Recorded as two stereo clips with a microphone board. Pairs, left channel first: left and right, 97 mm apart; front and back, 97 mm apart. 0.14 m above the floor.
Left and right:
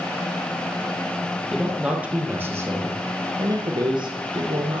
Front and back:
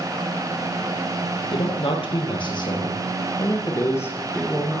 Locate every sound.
1.5 s a man speaking: 10° right, 3 m; by 4.8 s 80° right, 3 m